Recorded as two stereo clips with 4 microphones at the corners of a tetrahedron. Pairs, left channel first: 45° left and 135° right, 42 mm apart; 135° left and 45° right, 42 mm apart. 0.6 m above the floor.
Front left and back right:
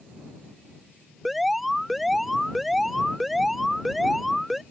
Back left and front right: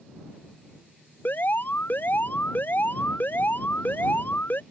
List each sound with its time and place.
1.2 s an alarm: 140° left